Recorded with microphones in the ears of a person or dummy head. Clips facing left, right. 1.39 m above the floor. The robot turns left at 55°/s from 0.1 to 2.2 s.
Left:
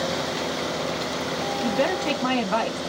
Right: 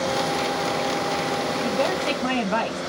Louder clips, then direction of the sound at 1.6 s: Left 2 dB; 15° left.